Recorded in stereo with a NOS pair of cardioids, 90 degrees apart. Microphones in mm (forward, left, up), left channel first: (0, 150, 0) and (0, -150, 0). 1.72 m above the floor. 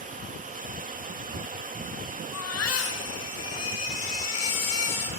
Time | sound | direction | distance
0.0 | running water | 25° right | 3 m
2.3 | a baby crying | 55° left | 5.5 m